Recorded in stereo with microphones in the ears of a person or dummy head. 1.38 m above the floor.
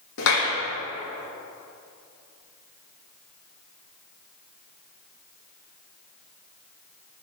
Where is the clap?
65° left (ahead or behind), 1.5 m.